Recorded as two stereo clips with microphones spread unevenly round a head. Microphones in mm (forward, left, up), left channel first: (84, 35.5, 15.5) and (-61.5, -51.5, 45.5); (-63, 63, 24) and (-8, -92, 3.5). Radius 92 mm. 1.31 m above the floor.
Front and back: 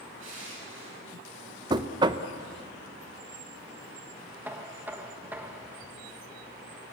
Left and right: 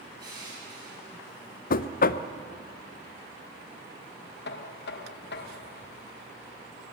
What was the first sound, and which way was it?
Crushing, 135° right.